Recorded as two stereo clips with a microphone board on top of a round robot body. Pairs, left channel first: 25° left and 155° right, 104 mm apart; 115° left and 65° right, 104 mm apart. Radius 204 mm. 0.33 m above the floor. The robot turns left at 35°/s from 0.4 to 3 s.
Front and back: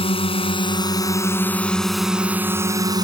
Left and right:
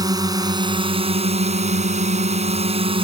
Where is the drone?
15° right; by 3.0 s 105° right.